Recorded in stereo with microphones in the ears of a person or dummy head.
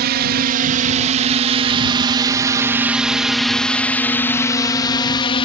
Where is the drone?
55° right (ahead or behind); by 5.5 s 25° left (ahead or behind).